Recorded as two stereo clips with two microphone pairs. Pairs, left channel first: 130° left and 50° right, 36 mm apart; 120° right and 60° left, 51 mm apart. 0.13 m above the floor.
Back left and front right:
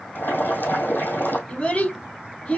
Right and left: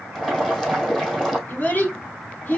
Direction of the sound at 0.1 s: 155° left.